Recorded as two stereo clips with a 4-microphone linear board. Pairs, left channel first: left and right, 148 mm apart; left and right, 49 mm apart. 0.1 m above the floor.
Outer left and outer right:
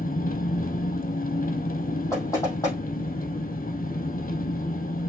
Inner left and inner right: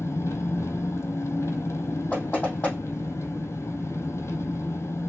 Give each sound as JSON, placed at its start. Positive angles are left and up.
{"t": 0.0, "sound": "an engine running", "side_deg": 70, "distance_m": 0.9}
{"t": 2.1, "sound": "knocking", "side_deg": 20, "distance_m": 3.5}